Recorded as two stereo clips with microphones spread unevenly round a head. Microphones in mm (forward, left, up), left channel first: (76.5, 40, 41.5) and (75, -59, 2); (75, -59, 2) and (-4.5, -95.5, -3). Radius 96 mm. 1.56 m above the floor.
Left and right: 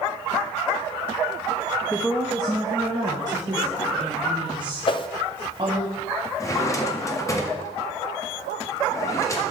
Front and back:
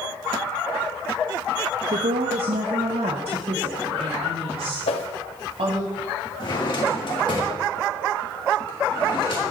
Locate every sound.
1.9 s a woman speaking: 175° left, 0.6 m; by 5.9 s 150° right, 3.5 m
4.9 s a whoosh: 55° left, 0.7 m
6.4 s a drawer: 50° left, 1.6 m